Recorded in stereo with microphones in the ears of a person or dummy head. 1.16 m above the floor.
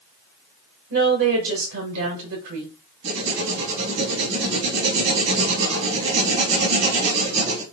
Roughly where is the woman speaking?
Right.